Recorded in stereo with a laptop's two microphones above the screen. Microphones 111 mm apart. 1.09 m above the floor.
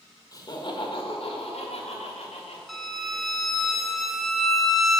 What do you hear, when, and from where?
0.3 s laughter: 35° left (ahead or behind), 1.6 m; by 2.6 s 75° left (ahead or behind), 3 m
2.7 s a violin: centre (ahead or behind), 0.9 m